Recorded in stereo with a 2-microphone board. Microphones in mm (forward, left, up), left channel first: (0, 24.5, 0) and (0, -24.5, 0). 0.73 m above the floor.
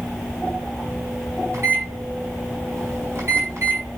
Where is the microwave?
55° right (ahead or behind), 5 m.